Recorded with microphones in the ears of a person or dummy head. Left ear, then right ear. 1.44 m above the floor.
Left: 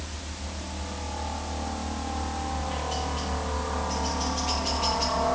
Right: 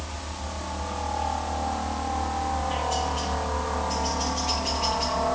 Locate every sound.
0.0 s a helicopter: 40° right (ahead or behind); by 5.4 s centre (ahead or behind)